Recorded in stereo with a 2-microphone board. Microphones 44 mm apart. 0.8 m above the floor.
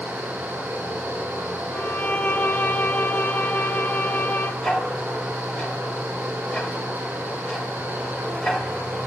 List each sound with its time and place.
0.0 s running water: 55° right (ahead or behind), 3.5 m
1.7 s a violin: 50° left (ahead or behind), 0.6 m
4.6 s ticking: 25° left (ahead or behind), 4 m